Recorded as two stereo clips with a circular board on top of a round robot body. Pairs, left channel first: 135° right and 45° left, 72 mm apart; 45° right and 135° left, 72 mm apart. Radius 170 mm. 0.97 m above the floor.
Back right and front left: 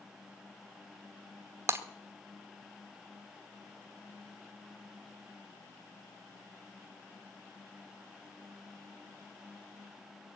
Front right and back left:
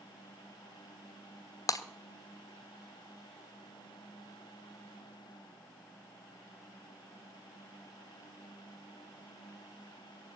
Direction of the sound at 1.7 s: 5° right.